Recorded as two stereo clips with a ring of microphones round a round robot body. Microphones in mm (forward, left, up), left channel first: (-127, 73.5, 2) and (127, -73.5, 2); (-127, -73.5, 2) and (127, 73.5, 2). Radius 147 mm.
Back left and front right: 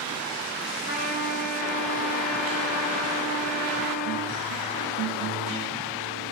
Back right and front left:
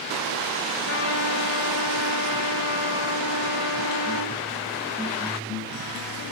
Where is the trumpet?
155° right, 9.5 m.